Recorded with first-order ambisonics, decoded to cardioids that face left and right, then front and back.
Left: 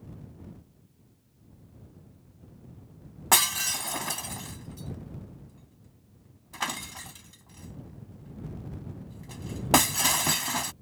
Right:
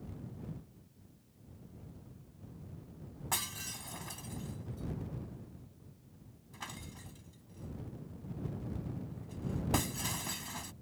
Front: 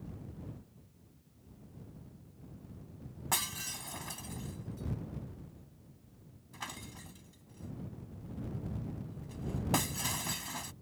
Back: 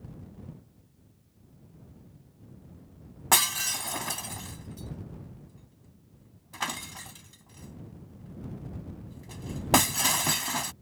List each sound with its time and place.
3.3 s breaking glass: 130° left